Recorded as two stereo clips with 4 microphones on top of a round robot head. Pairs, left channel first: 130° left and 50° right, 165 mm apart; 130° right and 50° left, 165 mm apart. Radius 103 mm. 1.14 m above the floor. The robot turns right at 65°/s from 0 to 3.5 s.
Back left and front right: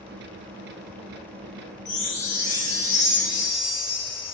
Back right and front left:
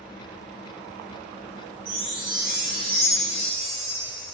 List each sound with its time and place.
1.9 s a chime: 80° left, 0.8 m; by 4.3 s 170° right, 0.8 m